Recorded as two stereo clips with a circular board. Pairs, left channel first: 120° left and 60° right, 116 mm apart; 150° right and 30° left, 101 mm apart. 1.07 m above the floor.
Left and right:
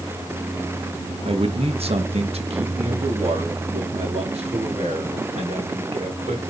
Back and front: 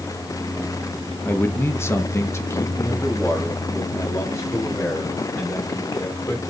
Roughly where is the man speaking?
Right.